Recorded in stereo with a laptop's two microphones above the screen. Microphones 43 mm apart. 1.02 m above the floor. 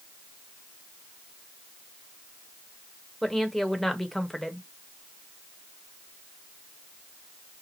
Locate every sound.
3.2 s a woman speaking: 5° left (ahead or behind), 1.0 m